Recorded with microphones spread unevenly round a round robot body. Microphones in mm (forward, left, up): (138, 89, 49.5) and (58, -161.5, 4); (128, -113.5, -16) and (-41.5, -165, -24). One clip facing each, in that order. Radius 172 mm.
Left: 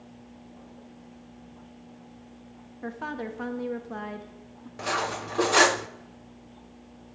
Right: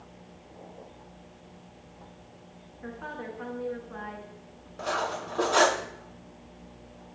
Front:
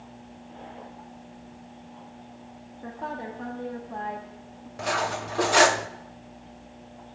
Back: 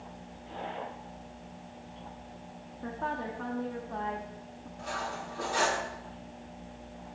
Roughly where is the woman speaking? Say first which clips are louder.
Left 5 dB, even; left.